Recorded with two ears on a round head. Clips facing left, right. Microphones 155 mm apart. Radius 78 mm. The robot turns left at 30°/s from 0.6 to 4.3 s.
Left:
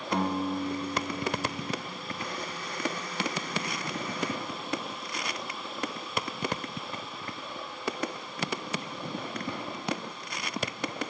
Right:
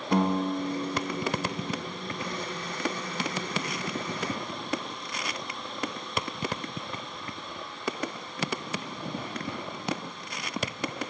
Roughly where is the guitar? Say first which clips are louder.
Right 3 dB; ahead right.